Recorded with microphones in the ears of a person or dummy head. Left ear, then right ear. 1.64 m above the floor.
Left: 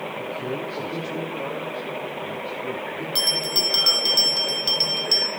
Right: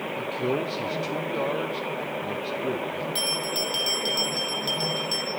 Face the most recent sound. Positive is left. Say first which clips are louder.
# left 7 dB
turn(degrees=15)  # may be behind; listen again after turning